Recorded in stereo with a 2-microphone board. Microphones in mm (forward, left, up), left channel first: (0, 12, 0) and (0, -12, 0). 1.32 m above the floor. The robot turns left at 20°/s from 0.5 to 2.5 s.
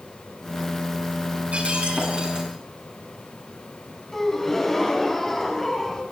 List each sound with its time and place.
1.5 s breaking glass: 60° right (ahead or behind), 6.5 m; by 2.5 s 40° right (ahead or behind), 6.5 m
4.1 s a gasp: 10° left (ahead or behind), 4 m